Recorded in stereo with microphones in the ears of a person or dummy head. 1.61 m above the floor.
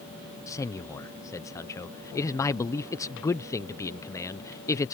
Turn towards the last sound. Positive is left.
turn(degrees=15)  # may be behind; listen again after turning